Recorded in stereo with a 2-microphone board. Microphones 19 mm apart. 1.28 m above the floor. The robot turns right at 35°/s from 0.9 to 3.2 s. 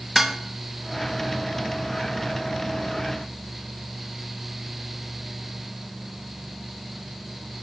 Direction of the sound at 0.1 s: 15° right (ahead or behind).